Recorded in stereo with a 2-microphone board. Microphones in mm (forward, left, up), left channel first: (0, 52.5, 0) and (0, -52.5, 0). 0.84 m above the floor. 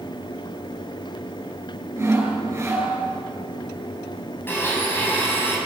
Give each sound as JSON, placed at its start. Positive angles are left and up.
{"t": 2.0, "sound": "sawing", "side_deg": -25, "distance_m": 7.5}
{"t": 4.5, "sound": "a blender", "side_deg": 20, "distance_m": 5.5}